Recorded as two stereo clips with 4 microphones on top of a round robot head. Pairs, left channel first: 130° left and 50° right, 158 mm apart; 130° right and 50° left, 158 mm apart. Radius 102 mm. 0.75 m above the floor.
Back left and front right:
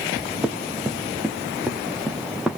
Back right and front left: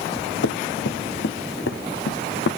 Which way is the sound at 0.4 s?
130° right.